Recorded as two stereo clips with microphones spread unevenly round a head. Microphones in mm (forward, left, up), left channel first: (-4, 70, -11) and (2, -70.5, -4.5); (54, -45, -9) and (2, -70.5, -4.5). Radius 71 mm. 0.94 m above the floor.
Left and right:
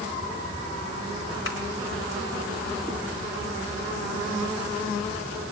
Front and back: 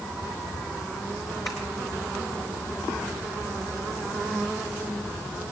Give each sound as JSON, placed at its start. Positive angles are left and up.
{"t": 1.4, "sound": "tapping", "azimuth_deg": 95, "distance_m": 4.0}